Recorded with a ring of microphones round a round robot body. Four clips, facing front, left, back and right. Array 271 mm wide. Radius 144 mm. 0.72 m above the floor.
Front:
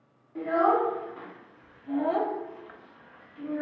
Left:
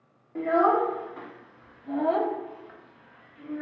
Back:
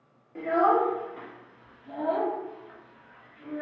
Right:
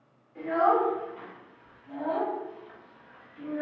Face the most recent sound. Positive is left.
turn(degrees=-40)